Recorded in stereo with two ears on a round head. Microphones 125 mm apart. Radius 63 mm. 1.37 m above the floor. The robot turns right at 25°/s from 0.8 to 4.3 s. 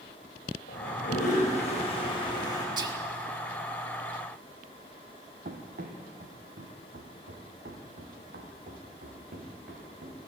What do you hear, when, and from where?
0.7 s a toilet flushing: 110° left, 7.5 m; by 2.7 s 155° left, 7.5 m
2.8 s whispering: 30° right (ahead or behind), 2.5 m; by 3.0 s 25° right (ahead or behind), 2.5 m
5.5 s running footsteps: 60° right (ahead or behind), 3 m; by 10.2 s 75° right (ahead or behind), 6.5 m